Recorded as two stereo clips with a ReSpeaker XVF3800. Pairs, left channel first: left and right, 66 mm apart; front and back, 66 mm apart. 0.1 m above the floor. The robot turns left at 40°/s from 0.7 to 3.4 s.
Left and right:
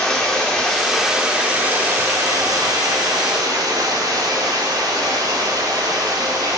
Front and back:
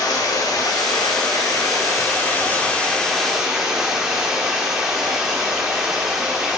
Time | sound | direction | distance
0.0 | running water | 5° left | 2.5 m